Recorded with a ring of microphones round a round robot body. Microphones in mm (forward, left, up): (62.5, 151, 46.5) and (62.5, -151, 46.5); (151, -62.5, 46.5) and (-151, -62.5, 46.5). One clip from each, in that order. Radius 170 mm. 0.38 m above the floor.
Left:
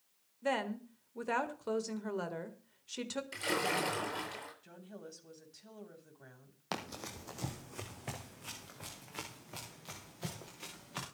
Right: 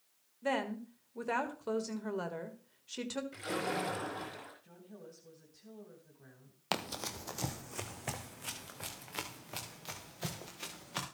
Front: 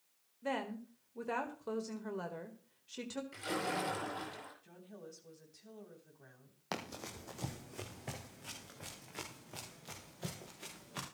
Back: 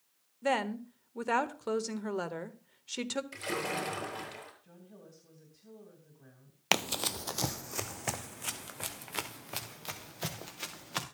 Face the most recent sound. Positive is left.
turn(degrees=-165)